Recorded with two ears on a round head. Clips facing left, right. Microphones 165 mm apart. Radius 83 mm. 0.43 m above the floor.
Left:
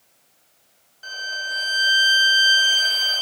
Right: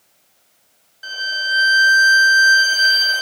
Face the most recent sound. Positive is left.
turn(degrees=-5)  # may be behind; listen again after turning